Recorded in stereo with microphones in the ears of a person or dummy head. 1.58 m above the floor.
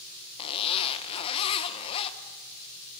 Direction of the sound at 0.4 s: 35° left (ahead or behind).